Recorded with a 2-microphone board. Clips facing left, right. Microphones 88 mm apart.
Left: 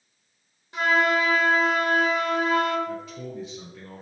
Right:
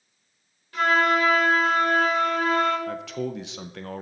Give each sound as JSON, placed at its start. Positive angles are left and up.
{"t": 0.7, "sound": "a flute", "side_deg": 20, "distance_m": 2.5}
{"t": 2.9, "sound": "a man speaking", "side_deg": -90, "distance_m": 0.6}